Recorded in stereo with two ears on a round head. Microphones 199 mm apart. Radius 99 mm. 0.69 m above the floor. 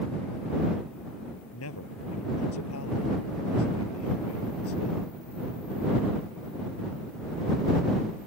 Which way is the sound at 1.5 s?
75° left (ahead or behind).